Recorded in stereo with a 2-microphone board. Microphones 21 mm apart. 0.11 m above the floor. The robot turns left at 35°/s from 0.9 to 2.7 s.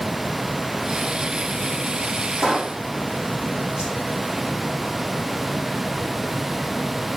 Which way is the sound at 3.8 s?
75° right (ahead or behind).